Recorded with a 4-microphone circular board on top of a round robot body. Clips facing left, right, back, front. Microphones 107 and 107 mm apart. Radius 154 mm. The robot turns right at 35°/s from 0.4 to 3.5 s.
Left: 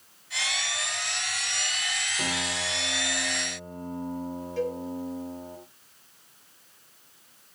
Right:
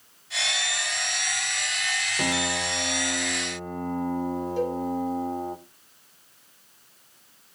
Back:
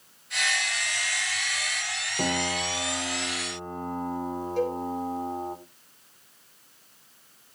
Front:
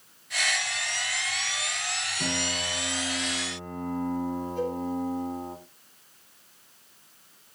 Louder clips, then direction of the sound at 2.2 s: Right 6 dB, back 5 dB; 155° right.